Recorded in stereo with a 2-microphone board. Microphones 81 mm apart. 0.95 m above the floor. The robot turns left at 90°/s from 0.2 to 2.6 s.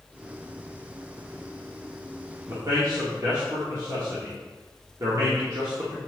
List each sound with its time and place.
2.5 s a man speaking: 40° right (ahead or behind), 1.9 m; by 6.0 s 50° right (ahead or behind), 1.9 m